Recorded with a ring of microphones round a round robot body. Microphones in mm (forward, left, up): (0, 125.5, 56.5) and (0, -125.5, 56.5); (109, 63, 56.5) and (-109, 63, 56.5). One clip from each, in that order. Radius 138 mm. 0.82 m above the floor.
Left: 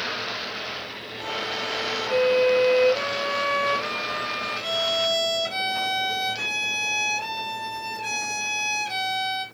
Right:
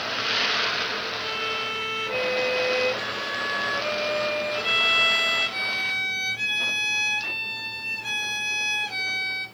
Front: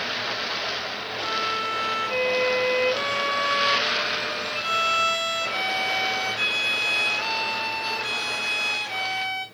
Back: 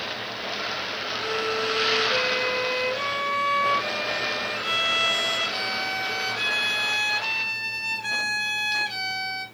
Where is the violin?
95° left, 1.7 m.